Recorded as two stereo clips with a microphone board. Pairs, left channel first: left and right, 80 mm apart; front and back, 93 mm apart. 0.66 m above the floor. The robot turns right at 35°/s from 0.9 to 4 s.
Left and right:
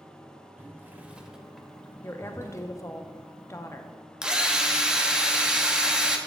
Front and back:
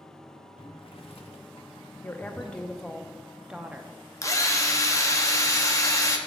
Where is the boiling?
20° right, 0.9 m; by 2.6 s 40° left, 0.9 m.